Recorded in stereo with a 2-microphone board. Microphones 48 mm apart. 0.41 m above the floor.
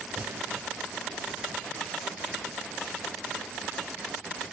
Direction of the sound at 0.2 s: 50° right (ahead or behind).